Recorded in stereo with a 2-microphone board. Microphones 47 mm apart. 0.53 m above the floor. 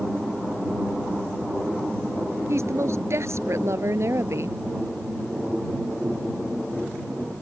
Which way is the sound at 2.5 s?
70° right (ahead or behind).